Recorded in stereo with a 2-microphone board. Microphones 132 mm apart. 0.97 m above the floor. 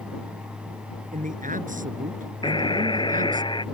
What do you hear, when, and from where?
1.1 s a man speaking: 80° right
2.4 s a buzzer: 40° left (ahead or behind)